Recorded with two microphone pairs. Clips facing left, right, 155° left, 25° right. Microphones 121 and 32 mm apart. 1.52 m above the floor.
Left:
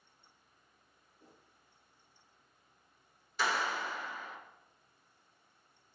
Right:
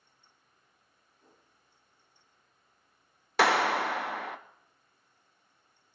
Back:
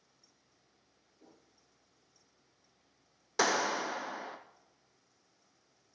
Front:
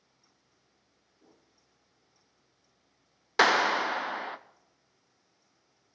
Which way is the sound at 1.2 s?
140° left.